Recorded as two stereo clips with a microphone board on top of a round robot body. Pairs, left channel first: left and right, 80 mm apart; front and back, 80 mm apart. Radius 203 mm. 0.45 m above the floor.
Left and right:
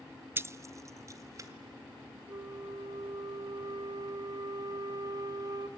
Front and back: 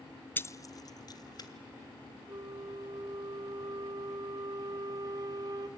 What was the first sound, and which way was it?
Keys jangling, 50° right.